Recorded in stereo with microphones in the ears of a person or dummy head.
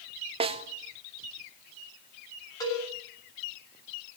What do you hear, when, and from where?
0.4 s a snare drum: 30° right (ahead or behind), 1.2 m
2.6 s a cowbell: 20° left (ahead or behind), 8 m